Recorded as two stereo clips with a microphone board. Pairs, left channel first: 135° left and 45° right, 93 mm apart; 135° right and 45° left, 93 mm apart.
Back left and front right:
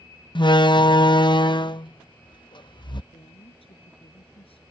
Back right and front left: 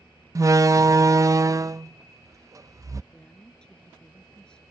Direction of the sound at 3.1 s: 145° left.